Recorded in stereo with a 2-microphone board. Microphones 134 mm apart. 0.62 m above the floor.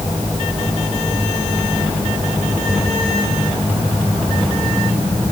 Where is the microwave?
No microwave in this recording.